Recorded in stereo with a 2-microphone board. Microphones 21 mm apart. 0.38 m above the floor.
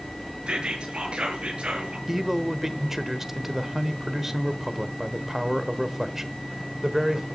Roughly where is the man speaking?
Centre.